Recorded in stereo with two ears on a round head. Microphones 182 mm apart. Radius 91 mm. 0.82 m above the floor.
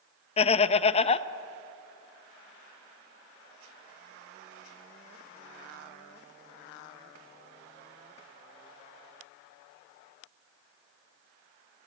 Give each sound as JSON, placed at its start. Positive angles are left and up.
{"t": 0.4, "sound": "laughter", "side_deg": 30, "distance_m": 0.5}